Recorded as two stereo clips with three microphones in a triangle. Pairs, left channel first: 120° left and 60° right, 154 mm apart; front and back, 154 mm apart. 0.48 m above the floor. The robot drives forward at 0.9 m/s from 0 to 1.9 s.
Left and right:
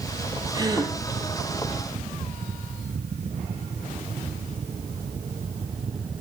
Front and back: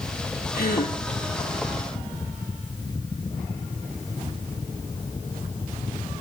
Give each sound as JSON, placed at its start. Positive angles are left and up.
{"t": 0.5, "sound": "a gasp", "azimuth_deg": 0, "distance_m": 4.5}